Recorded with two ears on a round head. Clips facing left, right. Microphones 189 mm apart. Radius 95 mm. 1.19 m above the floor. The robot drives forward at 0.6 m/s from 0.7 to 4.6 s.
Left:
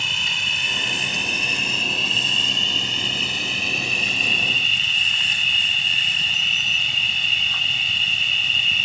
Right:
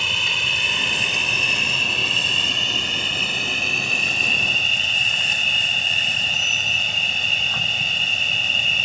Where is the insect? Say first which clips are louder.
Right 4 dB; 70° right (ahead or behind); by 8.8 s 45° right (ahead or behind).